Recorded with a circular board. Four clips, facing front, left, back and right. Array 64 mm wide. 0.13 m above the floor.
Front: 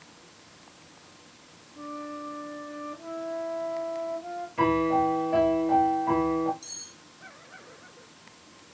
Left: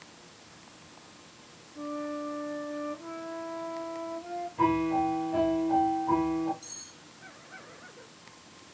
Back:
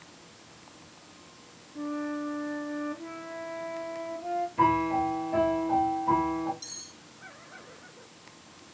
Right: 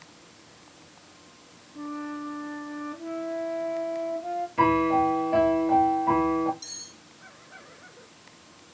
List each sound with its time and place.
1.8 s a flute: 155° right, 1.0 m
4.6 s a piano: 65° right, 0.9 m
6.6 s cutlery clinking: 135° right, 1.3 m